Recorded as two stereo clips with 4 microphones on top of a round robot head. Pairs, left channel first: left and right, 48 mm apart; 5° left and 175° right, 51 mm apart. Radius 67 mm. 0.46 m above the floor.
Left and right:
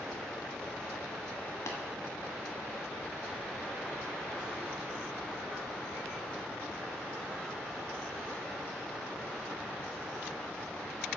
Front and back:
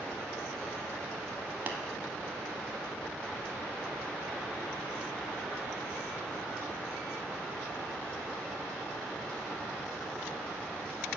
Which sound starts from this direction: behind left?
Tapping, at 1.7 s.